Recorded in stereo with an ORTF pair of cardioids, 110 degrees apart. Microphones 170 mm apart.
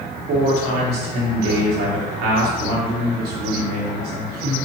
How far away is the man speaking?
About 4 m.